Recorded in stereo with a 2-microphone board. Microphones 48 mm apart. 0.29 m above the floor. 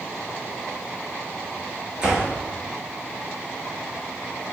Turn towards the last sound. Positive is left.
turn(degrees=-20)  # may be behind; listen again after turning